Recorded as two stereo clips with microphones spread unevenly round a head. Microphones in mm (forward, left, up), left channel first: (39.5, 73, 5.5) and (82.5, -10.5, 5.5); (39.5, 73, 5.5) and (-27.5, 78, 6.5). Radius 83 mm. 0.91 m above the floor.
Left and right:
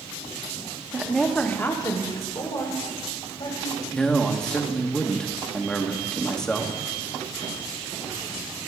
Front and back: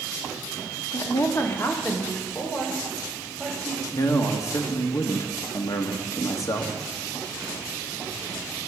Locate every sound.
0.9 s a woman speaking: 15° left, 1.3 m; by 3.8 s 80° left, 5 m
3.9 s a man speaking: 35° left, 1.4 m